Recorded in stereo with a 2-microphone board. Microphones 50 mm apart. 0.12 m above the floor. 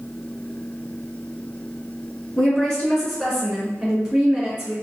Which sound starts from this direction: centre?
A woman speaking, at 2.4 s.